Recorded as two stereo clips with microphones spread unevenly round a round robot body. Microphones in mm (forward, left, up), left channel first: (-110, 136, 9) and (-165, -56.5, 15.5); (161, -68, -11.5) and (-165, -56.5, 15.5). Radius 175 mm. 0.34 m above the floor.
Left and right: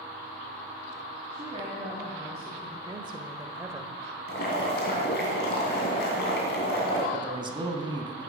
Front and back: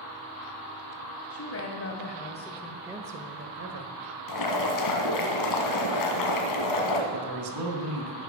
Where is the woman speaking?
35° right, 2.5 m; by 3.9 s 175° left, 1.7 m.